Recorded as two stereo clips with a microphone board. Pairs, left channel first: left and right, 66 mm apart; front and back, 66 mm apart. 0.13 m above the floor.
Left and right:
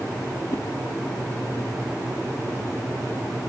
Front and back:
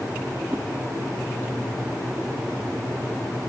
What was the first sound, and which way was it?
A whoosh, 115° left.